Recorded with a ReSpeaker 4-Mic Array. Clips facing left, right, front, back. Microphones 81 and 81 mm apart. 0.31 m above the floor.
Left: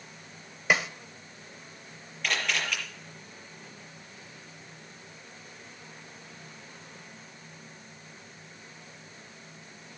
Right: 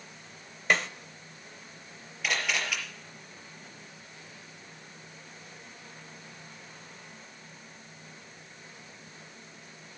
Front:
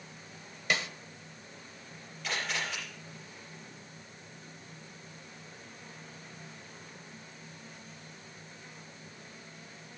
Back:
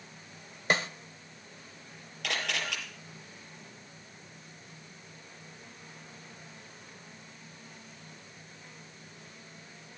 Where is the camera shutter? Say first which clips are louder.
Even, back 1 dB; 175° right, 6 m.